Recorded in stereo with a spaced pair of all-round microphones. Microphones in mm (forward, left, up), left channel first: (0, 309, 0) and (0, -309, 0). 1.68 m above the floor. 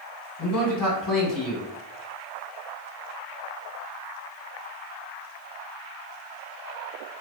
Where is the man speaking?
30° left (ahead or behind), 1.1 m.